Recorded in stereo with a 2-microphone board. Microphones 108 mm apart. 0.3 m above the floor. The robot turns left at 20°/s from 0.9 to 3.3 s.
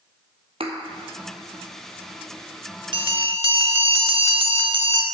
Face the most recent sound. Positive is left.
turn(degrees=-55)  # may be behind; listen again after turning